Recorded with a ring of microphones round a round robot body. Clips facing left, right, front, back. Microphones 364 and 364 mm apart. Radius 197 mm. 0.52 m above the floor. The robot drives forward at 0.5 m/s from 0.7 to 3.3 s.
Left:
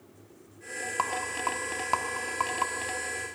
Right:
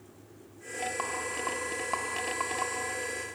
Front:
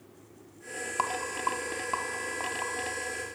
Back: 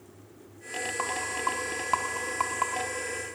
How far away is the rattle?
About 0.8 m.